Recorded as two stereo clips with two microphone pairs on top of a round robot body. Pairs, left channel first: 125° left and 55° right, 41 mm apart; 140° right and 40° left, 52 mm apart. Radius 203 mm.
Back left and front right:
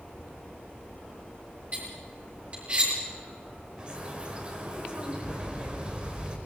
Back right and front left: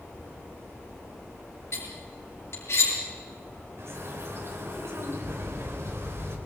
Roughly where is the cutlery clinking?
Right.